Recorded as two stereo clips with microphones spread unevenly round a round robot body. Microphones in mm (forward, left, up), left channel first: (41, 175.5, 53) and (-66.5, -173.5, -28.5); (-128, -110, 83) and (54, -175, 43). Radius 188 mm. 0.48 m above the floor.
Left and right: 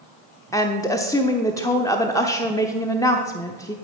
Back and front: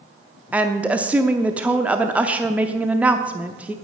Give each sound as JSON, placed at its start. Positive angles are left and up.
{"t": 0.5, "sound": "a woman speaking", "azimuth_deg": -30, "distance_m": 0.7}